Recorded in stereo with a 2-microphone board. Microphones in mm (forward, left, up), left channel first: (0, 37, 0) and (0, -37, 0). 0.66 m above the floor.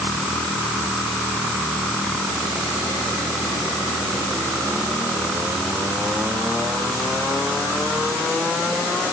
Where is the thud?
I don't hear a thud.